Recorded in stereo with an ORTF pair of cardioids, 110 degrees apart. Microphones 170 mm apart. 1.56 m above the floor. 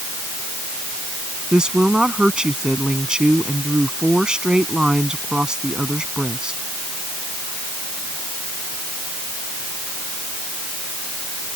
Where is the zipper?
I don't hear a zipper.